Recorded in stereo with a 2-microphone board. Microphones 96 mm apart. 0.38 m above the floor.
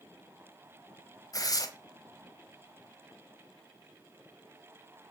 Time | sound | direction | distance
1.3 | tearing paper | 40° left (ahead or behind) | 1.0 m